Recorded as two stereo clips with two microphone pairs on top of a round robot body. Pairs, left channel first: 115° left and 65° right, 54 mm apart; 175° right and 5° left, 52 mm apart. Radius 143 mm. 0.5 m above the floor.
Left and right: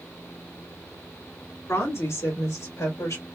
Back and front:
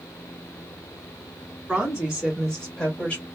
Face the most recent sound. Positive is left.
turn(degrees=135)